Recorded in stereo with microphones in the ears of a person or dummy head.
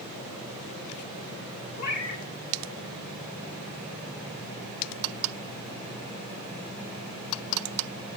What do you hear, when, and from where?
1.8 s a cat meowing: 15° left (ahead or behind), 1.0 m